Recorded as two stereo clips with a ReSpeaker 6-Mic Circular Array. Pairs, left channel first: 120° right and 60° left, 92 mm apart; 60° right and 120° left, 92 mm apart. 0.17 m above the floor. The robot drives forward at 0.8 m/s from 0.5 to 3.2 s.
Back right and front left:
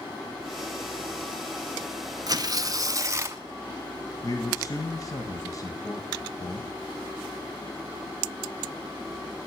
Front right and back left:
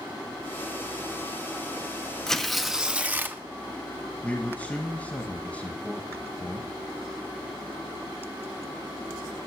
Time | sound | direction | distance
2.3 | tearing paper | 25° left | 1.2 m
4.2 | a man speaking | 130° right | 1.3 m